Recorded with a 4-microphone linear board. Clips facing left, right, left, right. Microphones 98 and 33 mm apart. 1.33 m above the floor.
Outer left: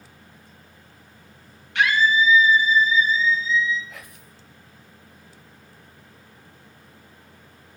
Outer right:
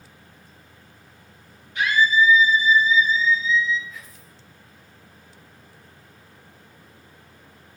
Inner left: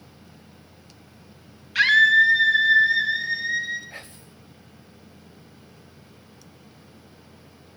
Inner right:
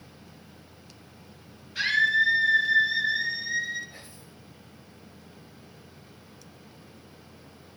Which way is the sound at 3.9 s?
65° left (ahead or behind).